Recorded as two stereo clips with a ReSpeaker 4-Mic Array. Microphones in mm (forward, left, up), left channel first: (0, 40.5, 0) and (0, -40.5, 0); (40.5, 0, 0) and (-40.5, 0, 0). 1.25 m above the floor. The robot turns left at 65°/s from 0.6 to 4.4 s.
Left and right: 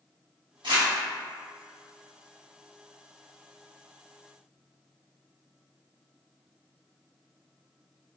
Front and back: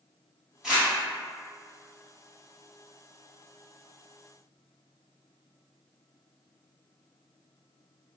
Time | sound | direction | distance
0.6 | crumpling | 95° right | 1.3 m